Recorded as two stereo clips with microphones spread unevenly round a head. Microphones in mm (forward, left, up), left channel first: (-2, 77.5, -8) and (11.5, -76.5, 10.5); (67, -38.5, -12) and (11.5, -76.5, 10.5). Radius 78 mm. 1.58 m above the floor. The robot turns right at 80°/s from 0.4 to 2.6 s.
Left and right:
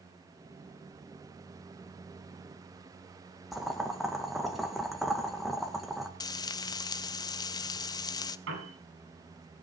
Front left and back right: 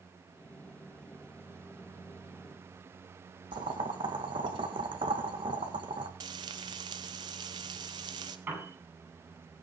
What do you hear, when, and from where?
3.5 s boiling: 175° right, 2 m
6.2 s frying: 165° left, 0.7 m
8.5 s a piano: 85° right, 9.5 m